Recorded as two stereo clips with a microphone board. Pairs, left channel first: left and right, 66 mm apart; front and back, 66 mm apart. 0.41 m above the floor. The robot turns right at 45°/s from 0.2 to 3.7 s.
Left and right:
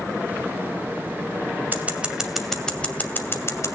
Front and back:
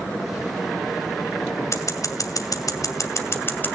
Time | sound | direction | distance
1.7 | scissors | 35° right | 2.5 m